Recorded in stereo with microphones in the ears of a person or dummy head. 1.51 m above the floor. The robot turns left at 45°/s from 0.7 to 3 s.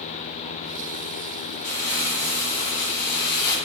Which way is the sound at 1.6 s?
120° left.